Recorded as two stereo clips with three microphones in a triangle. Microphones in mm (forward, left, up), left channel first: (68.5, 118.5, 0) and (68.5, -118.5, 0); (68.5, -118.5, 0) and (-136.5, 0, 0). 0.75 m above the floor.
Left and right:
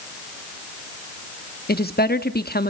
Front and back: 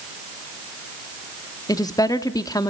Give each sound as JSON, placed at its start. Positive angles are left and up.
{"t": 1.7, "sound": "a woman speaking", "azimuth_deg": 45, "distance_m": 1.0}